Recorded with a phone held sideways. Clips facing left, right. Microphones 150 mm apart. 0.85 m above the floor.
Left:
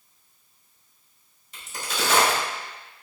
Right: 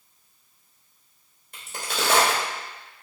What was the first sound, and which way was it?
A crack, 60° right (ahead or behind).